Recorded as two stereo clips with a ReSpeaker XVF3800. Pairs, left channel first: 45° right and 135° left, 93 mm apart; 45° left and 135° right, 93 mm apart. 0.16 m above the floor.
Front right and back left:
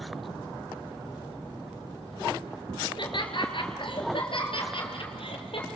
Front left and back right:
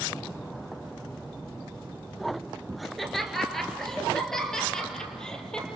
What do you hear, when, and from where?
2.8 s laughter: 45° right, 2.5 m; by 5.7 s 35° right, 5 m